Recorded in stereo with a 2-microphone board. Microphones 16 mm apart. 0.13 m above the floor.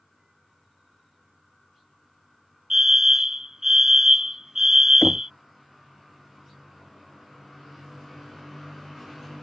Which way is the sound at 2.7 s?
30° right (ahead or behind).